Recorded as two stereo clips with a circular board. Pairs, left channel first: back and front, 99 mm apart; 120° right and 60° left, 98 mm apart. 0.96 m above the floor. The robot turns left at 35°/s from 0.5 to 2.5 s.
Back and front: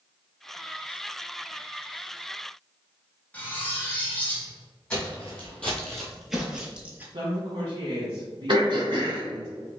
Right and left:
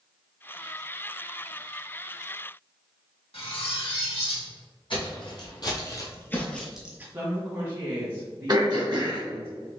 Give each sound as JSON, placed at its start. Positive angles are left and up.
{"t": 3.3, "sound": "cutlery clinking", "azimuth_deg": -105, "distance_m": 0.9}
{"t": 4.9, "sound": "footsteps", "azimuth_deg": -105, "distance_m": 1.9}
{"t": 7.1, "sound": "a woman speaking", "azimuth_deg": 0, "distance_m": 1.4}
{"t": 8.5, "sound": "throat clearing", "azimuth_deg": 25, "distance_m": 1.6}